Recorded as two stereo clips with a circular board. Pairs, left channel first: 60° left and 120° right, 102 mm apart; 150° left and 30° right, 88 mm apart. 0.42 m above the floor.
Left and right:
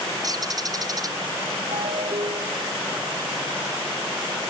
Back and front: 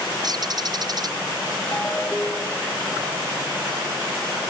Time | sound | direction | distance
0.2 | a bird | 70° right | ?
1.7 | a ringtone | 135° right | ?